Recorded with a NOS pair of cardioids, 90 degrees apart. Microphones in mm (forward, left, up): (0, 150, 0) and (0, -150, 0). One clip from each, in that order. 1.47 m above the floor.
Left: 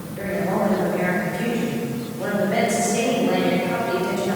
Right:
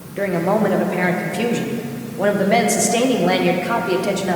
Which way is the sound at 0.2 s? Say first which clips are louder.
Right 5 dB; 65° right.